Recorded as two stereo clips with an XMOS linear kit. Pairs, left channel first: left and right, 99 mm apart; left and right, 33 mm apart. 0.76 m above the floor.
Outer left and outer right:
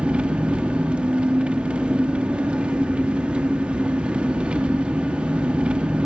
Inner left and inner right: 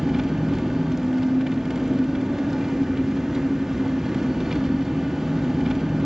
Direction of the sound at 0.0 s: 10° right (ahead or behind).